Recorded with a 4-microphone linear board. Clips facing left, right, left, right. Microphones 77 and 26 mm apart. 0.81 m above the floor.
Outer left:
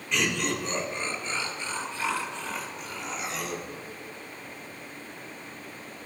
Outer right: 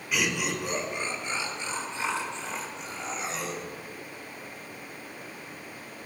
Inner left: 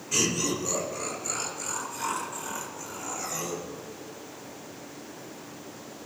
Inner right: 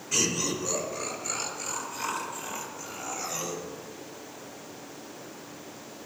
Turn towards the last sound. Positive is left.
turn(degrees=-35)  # may be behind; listen again after turning